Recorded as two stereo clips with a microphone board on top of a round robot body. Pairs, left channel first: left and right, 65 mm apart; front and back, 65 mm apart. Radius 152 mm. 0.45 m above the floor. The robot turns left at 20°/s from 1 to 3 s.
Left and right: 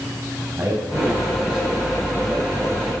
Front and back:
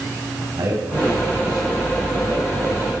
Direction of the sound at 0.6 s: 155° right.